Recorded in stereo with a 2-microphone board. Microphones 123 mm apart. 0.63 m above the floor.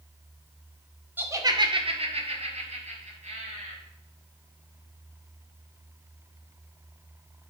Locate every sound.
1.2 s laughter: 15° right (ahead or behind), 0.9 m; by 3.8 s 70° right (ahead or behind), 3 m